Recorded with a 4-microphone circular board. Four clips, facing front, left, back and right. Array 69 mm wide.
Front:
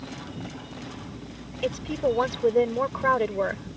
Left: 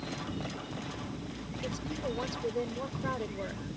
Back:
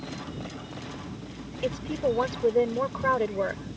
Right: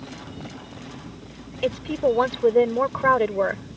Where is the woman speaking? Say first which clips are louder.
Right 15 dB, front 2 dB; 80° right.